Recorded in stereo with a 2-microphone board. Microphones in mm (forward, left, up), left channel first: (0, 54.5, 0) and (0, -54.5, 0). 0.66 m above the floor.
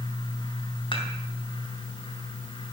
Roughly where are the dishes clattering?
Left.